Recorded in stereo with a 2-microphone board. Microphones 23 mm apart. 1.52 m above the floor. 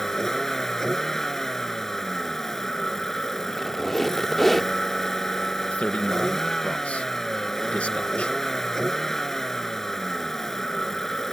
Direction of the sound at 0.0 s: 15° left (ahead or behind).